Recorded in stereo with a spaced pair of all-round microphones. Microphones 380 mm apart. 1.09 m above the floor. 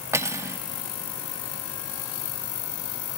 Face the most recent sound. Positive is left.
turn(degrees=-5)  # may be behind; listen again after turning